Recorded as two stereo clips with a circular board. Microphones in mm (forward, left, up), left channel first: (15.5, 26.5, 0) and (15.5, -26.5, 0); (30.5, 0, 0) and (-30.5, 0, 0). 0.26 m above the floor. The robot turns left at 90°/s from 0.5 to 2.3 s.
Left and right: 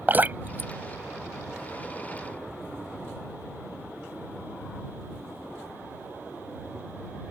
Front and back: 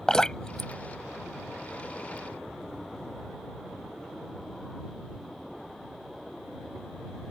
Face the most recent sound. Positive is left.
turn(degrees=125)